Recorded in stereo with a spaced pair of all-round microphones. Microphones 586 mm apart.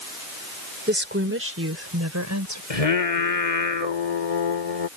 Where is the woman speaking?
15° right (ahead or behind); by 2.6 s 30° right (ahead or behind).